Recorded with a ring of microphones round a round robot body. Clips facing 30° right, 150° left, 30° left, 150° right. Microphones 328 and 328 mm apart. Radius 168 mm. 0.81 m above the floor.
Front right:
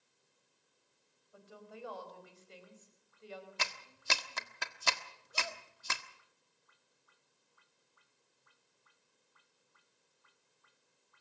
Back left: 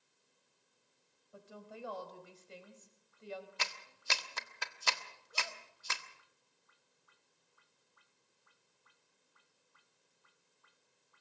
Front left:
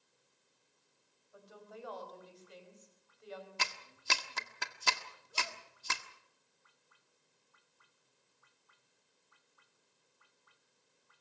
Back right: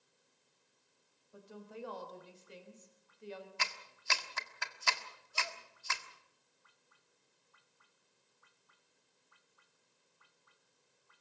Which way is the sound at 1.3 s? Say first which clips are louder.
Back left 1 dB, back right 3 dB; 155° left.